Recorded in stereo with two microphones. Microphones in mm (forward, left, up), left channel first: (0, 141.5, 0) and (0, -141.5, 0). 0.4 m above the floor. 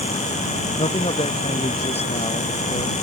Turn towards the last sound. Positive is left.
turn(degrees=20)  # may be behind; listen again after turning